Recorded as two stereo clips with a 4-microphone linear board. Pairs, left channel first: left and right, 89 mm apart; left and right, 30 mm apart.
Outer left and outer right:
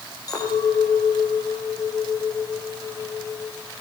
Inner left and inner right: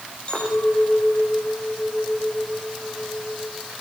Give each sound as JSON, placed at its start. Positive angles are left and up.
{"t": 0.3, "sound": "a clink", "side_deg": 40, "distance_m": 10.0}